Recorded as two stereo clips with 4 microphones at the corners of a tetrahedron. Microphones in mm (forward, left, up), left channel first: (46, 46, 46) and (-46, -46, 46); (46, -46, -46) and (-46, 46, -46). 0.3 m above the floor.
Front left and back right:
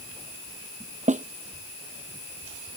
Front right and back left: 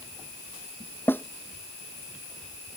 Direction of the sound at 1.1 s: 120° right.